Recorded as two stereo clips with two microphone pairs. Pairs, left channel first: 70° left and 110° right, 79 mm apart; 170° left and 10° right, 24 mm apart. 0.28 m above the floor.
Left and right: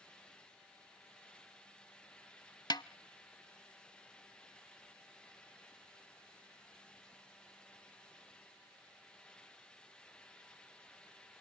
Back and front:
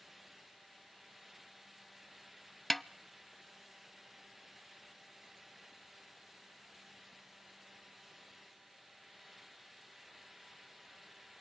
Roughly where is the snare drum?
Left.